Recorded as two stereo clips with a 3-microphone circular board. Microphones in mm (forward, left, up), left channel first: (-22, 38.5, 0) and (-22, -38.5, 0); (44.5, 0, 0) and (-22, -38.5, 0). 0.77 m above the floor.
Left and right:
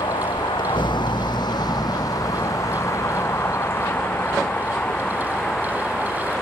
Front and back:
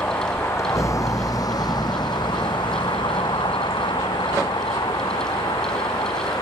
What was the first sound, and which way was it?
A vehicle, 90° left.